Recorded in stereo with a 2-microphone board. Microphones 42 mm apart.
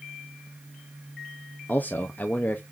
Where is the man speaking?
40° left (ahead or behind), 0.6 m.